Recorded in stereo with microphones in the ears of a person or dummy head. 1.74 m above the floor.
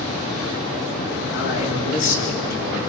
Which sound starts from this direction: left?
A man speaking, at 1.3 s.